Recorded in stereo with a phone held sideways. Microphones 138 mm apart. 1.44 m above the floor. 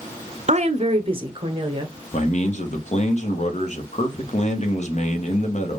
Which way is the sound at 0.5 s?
55° right (ahead or behind).